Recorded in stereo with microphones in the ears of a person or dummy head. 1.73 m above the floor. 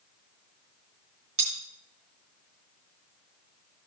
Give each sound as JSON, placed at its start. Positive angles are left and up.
{"t": 1.4, "sound": "cutlery clinking", "side_deg": -40, "distance_m": 3.0}